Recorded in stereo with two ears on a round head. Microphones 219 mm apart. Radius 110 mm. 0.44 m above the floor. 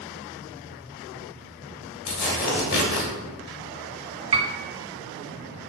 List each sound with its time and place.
2.1 s tearing paper: 45° left (ahead or behind), 1.2 m
4.3 s a piano: 30° right (ahead or behind), 0.7 m